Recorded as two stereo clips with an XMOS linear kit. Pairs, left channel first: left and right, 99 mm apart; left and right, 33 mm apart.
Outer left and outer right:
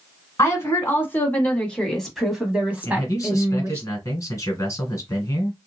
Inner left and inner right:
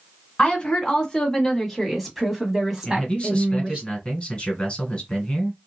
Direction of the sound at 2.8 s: 35° left (ahead or behind).